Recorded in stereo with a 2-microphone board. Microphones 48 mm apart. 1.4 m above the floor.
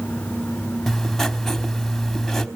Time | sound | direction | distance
0.9 | writing | 5° left (ahead or behind) | 1.2 m